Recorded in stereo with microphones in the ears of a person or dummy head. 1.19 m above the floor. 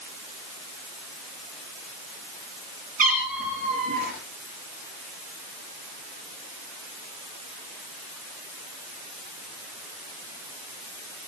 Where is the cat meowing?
30° right (ahead or behind), 4.5 m.